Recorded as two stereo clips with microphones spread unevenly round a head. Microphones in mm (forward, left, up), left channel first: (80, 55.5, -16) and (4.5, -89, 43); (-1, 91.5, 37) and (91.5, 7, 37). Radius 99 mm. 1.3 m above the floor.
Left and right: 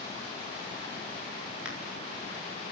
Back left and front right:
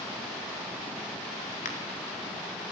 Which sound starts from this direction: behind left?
A crack, at 1.6 s.